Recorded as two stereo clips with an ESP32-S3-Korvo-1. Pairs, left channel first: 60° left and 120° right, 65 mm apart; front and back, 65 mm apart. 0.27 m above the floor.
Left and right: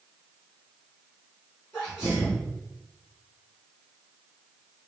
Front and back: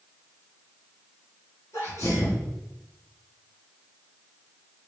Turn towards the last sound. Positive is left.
turn(degrees=-5)